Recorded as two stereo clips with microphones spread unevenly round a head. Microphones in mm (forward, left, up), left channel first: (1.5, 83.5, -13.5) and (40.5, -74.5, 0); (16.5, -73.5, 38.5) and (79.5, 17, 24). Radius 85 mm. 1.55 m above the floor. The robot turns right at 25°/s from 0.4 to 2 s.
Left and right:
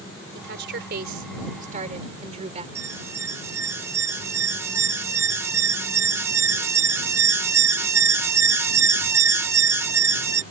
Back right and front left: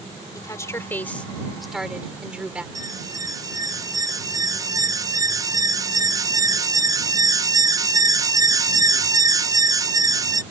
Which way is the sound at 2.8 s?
Straight ahead.